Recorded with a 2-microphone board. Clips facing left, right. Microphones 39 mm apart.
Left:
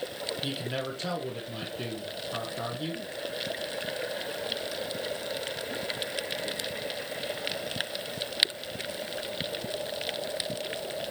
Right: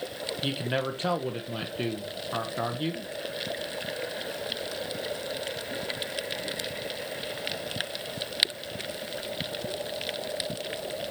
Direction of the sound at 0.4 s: 35° right (ahead or behind).